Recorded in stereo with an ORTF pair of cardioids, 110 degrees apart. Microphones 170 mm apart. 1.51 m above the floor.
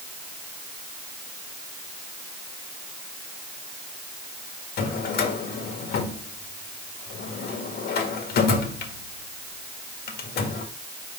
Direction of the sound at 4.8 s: 65° left.